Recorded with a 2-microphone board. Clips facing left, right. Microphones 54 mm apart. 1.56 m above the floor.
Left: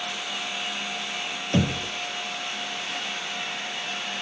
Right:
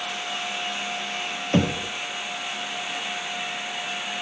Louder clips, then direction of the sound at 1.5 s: Right 2 dB; 20° right (ahead or behind).